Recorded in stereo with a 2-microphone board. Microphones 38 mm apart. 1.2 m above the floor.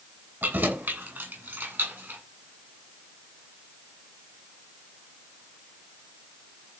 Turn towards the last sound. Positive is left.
turn(degrees=-75)  # may be behind; listen again after turning